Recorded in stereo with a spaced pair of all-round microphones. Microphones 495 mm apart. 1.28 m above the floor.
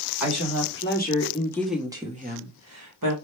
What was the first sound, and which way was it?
A woman speaking, 35° left (ahead or behind).